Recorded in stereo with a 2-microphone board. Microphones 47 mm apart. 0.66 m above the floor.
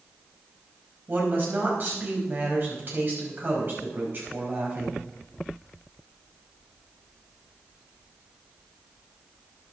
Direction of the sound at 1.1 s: 40° right (ahead or behind).